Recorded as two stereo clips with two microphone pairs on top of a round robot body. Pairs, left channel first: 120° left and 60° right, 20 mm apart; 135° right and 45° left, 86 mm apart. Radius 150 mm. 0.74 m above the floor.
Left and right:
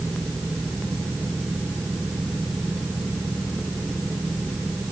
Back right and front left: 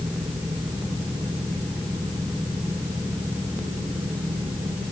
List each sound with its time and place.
Only background noise.